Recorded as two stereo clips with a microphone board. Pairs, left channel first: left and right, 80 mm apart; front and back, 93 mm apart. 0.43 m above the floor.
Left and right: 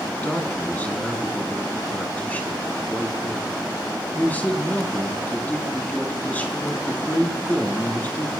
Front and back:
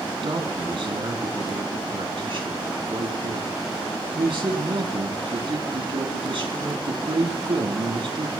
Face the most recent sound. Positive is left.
turn(degrees=160)